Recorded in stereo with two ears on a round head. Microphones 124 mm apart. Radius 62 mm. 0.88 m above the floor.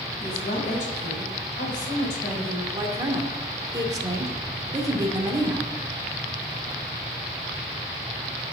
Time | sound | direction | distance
0.2 | a woman speaking | 55° left (ahead or behind) | 6 m
2.7 | a woman speaking | 25° right (ahead or behind) | 2.5 m